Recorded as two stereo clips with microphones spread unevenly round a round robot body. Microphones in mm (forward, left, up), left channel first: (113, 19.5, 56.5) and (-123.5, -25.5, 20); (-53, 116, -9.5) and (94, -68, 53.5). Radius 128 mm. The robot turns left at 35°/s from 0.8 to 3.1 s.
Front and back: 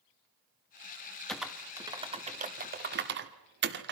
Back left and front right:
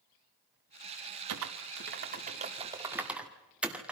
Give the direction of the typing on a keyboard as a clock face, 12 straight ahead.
3 o'clock.